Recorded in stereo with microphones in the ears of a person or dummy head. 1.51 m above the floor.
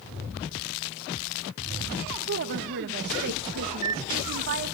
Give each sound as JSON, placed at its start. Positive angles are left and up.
{"t": 2.3, "sound": "a woman speaking", "side_deg": -50, "distance_m": 1.5}
{"t": 3.7, "sound": "a microwave", "side_deg": -85, "distance_m": 1.3}